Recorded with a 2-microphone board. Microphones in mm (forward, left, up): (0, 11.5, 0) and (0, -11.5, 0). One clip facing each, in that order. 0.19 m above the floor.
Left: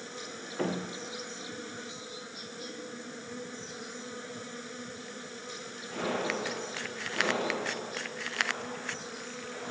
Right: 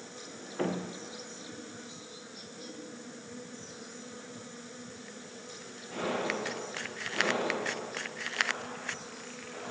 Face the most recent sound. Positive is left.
turn(degrees=25)  # may be behind; listen again after turning